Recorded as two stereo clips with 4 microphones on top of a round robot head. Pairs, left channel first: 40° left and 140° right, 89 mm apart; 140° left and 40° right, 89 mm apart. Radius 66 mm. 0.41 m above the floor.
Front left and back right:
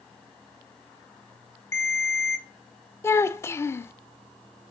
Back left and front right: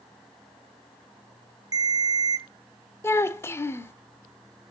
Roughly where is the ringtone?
Ahead.